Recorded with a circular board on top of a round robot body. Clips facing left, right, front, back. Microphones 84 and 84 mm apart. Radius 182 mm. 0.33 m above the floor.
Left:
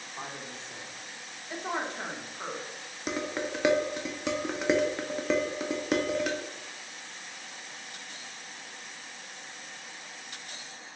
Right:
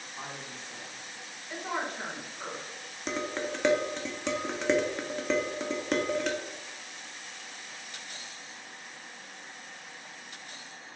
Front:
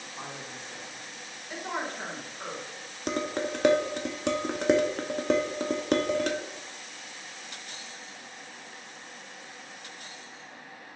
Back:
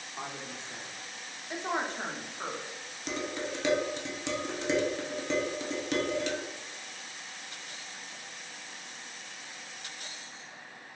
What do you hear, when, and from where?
0.2 s a woman speaking: 135° left, 1.1 m
3.1 s dishes clattering: 5° left, 0.7 m